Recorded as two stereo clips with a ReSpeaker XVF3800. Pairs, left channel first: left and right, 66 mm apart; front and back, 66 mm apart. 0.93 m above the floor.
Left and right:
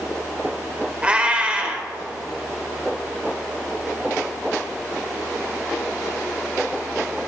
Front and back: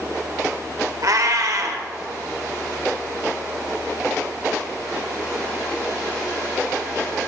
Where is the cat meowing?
160° right, 1.1 m.